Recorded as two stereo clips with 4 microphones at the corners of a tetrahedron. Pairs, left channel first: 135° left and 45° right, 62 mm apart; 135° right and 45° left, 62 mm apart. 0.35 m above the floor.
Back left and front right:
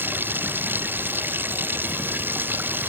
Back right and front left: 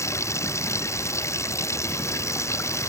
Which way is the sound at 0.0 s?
100° right.